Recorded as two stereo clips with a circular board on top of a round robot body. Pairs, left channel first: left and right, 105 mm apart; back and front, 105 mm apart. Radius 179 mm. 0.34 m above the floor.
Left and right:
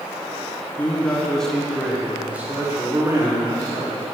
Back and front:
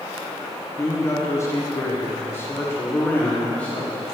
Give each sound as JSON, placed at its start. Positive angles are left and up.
{"t": 0.8, "sound": "a man speaking", "azimuth_deg": 150, "distance_m": 1.7}